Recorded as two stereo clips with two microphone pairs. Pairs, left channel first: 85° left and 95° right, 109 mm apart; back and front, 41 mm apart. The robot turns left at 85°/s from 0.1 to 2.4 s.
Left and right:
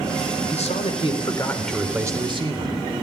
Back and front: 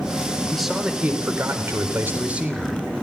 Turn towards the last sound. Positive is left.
turn(degrees=-60)